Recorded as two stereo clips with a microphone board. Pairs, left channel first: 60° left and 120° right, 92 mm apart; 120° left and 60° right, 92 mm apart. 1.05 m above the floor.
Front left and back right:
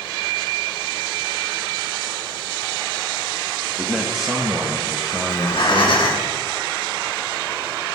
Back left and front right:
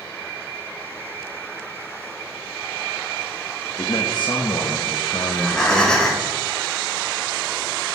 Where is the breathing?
35° left, 2.5 m.